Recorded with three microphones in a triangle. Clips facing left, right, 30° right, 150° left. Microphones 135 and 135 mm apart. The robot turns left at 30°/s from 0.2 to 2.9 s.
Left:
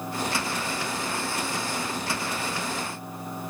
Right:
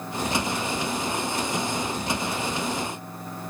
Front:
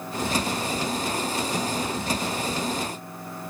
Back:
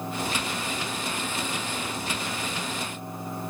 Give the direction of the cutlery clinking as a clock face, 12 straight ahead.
I don't hear cutlery clinking.